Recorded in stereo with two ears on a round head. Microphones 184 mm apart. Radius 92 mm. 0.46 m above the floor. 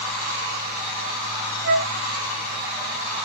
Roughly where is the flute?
Right.